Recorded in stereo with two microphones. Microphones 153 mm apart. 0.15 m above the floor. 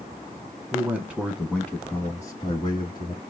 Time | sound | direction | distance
0.7 | a man speaking | 15° right (ahead or behind) | 1.3 m